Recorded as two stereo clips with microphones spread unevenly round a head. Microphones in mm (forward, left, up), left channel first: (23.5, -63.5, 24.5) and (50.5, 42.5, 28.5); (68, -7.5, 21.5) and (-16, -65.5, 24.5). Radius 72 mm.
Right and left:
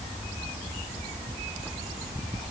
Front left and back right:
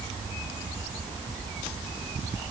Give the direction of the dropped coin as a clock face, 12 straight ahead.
No dropped coin in this recording.